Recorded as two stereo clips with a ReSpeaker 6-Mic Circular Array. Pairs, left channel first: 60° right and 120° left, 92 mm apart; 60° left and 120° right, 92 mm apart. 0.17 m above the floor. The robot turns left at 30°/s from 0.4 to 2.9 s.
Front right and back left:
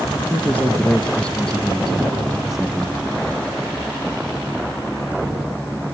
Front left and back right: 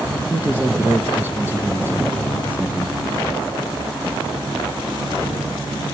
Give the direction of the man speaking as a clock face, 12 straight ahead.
3 o'clock.